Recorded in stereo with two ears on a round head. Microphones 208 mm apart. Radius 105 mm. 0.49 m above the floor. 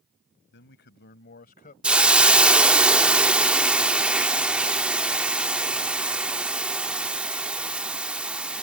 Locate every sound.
0.5 s a man speaking: 55° left (ahead or behind); by 1.7 s 40° left (ahead or behind)
1.8 s a hiss: 5° right (ahead or behind)